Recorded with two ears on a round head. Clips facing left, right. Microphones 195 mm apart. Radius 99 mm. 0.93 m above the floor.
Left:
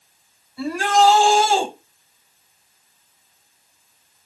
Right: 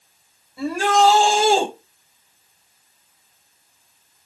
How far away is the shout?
About 5 m.